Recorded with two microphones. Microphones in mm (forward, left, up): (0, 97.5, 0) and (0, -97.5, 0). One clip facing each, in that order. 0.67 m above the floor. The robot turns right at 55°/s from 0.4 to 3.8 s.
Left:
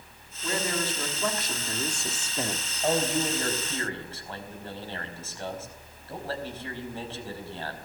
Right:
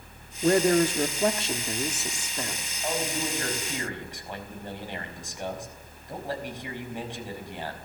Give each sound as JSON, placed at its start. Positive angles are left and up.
{"t": 0.4, "sound": "a man speaking", "azimuth_deg": -90, "distance_m": 1.5}
{"t": 2.8, "sound": "a man speaking", "azimuth_deg": 145, "distance_m": 4.5}